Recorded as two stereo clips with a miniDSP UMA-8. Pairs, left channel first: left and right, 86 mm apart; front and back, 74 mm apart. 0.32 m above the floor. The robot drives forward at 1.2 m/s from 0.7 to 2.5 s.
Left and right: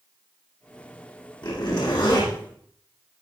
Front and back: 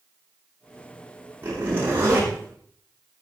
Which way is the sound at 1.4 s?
120° left.